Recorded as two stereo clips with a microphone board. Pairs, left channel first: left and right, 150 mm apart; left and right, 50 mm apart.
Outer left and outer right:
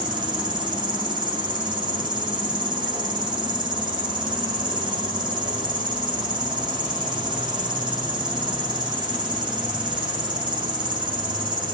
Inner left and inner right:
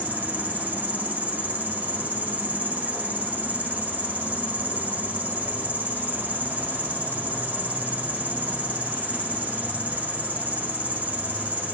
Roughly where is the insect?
Right.